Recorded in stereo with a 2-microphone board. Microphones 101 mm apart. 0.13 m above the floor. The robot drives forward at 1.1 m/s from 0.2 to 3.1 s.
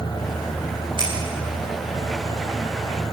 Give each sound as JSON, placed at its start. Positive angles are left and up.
{"t": 1.0, "sound": "scissors", "side_deg": -55, "distance_m": 10.0}